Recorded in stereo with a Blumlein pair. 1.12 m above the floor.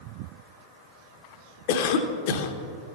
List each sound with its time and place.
1.7 s a cough: 50° left, 0.8 m